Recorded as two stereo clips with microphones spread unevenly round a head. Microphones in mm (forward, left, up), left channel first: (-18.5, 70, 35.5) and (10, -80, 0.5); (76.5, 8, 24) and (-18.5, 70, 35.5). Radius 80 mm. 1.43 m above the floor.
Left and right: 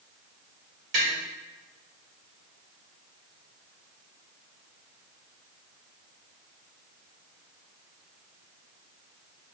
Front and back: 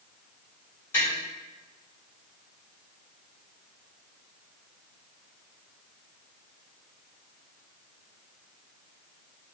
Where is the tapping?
110° right, 1.6 m.